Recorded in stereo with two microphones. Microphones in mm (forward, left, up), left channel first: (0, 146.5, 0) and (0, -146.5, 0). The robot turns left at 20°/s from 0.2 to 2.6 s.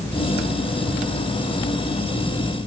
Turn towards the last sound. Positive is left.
No sound to turn to.